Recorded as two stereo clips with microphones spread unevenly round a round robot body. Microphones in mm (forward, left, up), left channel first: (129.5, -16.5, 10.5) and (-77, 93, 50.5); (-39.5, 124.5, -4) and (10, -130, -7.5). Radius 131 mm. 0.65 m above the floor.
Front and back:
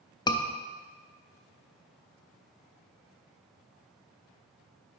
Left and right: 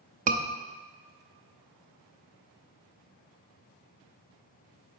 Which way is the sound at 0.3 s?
55° right.